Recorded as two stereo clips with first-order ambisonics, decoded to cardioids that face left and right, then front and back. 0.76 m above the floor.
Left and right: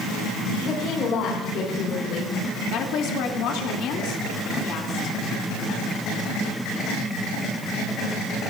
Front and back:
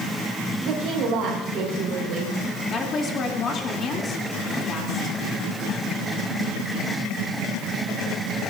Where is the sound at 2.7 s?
60° left, 2.5 m.